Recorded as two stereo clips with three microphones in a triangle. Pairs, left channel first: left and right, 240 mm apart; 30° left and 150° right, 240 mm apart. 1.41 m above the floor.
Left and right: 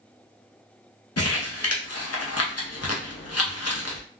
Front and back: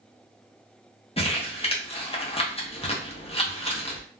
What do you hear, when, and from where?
1.2 s crumpling: 95° left, 0.7 m